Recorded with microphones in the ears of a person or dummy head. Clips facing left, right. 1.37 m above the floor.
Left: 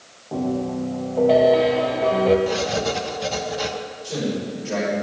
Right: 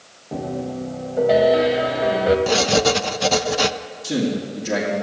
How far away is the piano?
About 1.1 m.